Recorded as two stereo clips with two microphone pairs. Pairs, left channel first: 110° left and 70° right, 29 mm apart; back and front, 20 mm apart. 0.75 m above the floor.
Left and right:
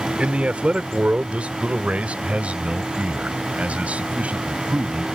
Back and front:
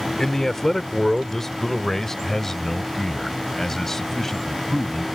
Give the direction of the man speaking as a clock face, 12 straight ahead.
4 o'clock.